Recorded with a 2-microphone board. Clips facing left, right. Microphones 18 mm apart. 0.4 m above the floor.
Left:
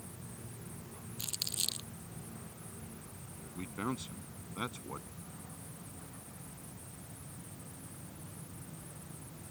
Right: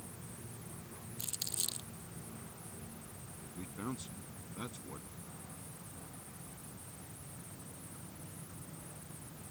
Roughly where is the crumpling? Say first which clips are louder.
Left 4 dB; left.